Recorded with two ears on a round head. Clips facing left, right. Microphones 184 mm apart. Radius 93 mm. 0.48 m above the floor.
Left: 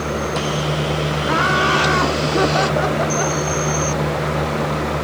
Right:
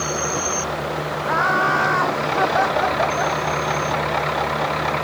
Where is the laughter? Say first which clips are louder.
Left 2 dB; 40° left (ahead or behind).